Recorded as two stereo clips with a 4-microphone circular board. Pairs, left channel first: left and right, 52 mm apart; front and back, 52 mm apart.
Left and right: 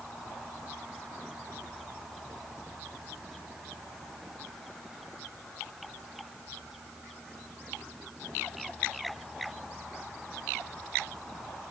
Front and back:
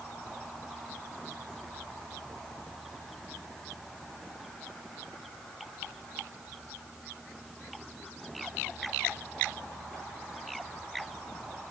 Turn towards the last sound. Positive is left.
No sound to turn to.